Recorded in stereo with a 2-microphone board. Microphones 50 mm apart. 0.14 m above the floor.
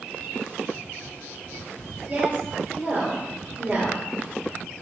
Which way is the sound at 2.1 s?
20° right (ahead or behind).